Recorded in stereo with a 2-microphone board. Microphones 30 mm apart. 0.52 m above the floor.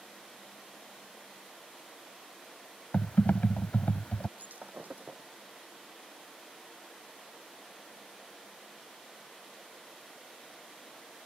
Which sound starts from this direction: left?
Typing on a keyboard, at 2.9 s.